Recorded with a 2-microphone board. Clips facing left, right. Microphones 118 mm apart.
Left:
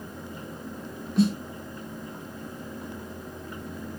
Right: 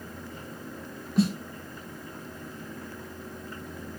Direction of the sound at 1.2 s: Centre (ahead or behind).